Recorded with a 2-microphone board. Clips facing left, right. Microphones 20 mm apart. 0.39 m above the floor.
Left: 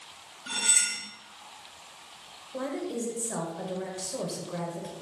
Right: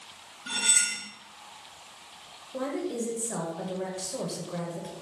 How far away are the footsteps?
No footsteps in this recording.